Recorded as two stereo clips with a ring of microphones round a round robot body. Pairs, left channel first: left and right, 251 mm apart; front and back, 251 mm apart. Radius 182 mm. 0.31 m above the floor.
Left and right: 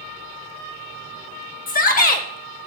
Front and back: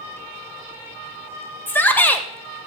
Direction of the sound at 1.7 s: 75° left.